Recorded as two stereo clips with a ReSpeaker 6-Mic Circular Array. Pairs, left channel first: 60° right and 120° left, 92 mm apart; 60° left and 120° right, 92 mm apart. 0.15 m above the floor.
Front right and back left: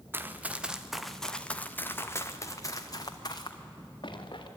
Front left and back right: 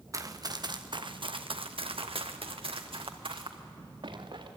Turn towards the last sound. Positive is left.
turn(degrees=-95)